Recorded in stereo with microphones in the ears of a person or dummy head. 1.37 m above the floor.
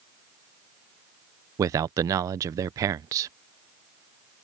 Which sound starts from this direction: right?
A man speaking, at 1.6 s.